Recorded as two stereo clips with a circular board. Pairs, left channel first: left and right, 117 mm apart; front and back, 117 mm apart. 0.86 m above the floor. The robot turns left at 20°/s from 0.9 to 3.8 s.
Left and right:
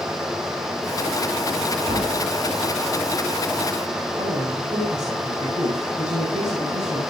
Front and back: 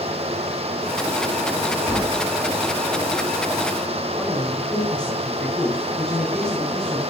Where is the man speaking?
85° right, 5.5 m.